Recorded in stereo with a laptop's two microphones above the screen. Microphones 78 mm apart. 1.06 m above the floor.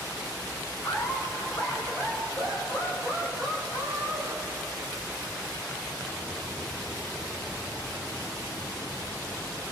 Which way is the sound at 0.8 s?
5° left (ahead or behind).